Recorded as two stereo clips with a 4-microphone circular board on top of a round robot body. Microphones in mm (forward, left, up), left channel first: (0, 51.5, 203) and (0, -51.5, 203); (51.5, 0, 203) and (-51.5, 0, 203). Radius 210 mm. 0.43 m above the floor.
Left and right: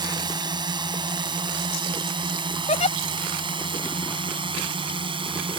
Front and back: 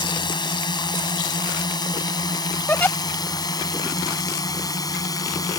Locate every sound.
0.0 s a drone: 45° right; by 5.6 s 55° right
2.7 s a giggle: 75° left